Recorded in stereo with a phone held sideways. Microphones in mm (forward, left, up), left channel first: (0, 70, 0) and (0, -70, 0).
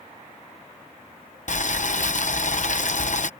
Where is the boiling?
60° left (ahead or behind).